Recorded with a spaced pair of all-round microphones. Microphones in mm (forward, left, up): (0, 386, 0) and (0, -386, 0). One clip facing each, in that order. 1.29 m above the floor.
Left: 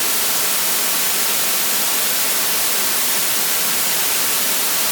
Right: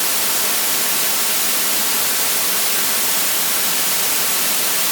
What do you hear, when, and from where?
Only background noise.